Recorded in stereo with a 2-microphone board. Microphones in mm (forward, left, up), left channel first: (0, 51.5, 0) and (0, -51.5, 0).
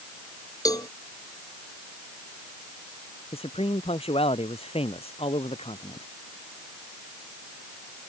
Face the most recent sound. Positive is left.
turn(degrees=70)  # may be behind; listen again after turning